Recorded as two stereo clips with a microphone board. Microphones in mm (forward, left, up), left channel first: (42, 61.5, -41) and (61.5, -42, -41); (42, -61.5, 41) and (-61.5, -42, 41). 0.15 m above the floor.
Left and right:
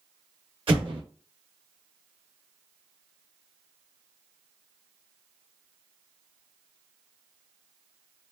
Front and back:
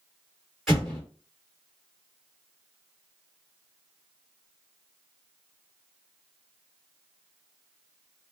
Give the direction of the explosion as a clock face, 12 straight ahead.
3 o'clock.